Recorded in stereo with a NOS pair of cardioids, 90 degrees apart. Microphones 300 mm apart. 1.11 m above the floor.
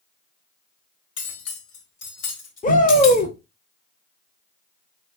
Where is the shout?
25° left, 1.0 m.